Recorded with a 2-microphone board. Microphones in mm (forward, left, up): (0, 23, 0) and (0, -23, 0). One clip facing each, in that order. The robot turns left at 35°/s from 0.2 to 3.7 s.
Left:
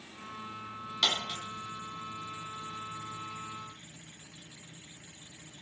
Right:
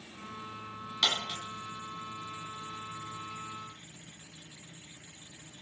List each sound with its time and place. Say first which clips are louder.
1.0 s a dropped coin: even; 10° right (ahead or behind), 0.9 m; by 1.4 s 20° right (ahead or behind), 0.9 m